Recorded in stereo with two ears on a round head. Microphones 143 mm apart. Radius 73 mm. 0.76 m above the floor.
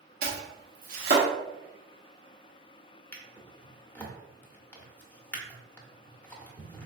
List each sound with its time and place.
0.2 s chopping: 55° right (ahead or behind), 1.0 m
3.1 s a drawer: 10° left (ahead or behind), 0.7 m